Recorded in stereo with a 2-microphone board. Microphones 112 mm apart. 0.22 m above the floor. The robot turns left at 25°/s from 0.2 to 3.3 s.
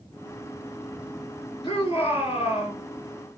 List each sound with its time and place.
1.6 s a shout: 45° left (ahead or behind), 3.5 m; by 2.8 s 70° left (ahead or behind), 3.5 m